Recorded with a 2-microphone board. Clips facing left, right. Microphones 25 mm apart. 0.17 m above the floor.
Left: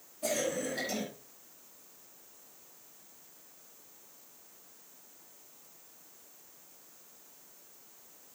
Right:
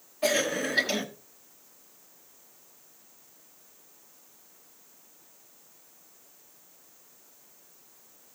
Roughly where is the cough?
Right.